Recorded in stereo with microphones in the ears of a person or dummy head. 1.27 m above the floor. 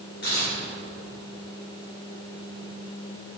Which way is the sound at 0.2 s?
55° left (ahead or behind).